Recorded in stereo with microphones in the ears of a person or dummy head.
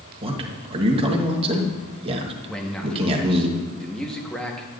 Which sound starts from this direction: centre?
A man speaking, at 2.5 s.